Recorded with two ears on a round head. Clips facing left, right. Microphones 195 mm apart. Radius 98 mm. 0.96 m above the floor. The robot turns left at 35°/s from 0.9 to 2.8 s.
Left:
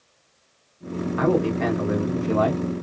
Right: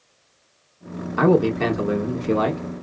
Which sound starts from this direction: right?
A man speaking, at 1.2 s.